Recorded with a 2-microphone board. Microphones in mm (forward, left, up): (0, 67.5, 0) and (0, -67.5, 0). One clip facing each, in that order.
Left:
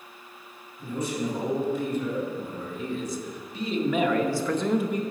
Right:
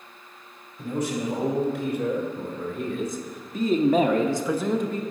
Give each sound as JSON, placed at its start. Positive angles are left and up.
{"t": 0.8, "sound": "a man speaking", "side_deg": -70, "distance_m": 2.5}